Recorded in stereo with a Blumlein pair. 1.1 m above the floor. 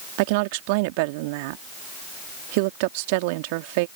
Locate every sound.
0.2 s a woman speaking: 45° right